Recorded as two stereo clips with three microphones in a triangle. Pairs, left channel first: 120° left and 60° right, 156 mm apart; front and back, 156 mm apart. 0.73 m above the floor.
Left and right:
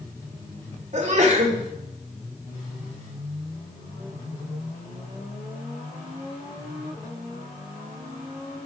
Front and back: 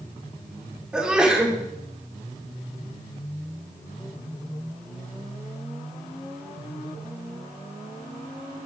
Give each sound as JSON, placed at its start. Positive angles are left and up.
{"t": 0.9, "sound": "a sneeze", "azimuth_deg": -95, "distance_m": 2.0}